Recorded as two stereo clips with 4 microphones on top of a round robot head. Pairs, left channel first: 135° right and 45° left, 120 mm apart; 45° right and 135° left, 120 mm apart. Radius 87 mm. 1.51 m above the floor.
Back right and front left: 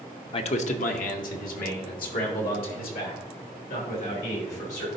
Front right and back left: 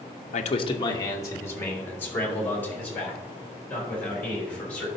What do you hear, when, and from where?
0.3 s a man speaking: 80° right, 0.5 m; by 4.9 s 125° right, 4.5 m